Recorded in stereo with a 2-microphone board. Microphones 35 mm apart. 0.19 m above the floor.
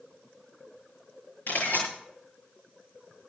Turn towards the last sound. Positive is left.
turn(degrees=65)  # may be behind; listen again after turning